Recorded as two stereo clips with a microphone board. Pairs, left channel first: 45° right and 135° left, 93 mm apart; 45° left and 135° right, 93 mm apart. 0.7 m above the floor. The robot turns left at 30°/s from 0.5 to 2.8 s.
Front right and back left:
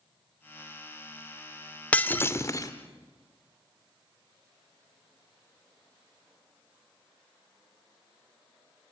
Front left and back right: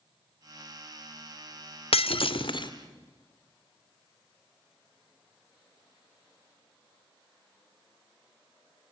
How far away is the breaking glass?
About 0.9 m.